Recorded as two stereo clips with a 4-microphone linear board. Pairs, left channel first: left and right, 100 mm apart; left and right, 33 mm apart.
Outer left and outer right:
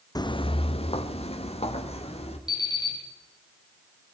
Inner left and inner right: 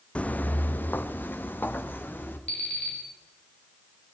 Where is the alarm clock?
40° left (ahead or behind), 6 m.